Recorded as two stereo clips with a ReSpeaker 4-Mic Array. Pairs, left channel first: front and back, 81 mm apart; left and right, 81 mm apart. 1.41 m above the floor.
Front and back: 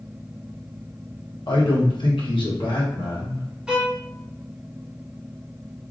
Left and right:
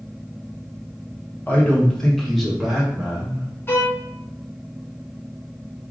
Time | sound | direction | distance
1.5 | a man speaking | 20° left | 1.0 m
3.7 | a violin | 110° left | 0.9 m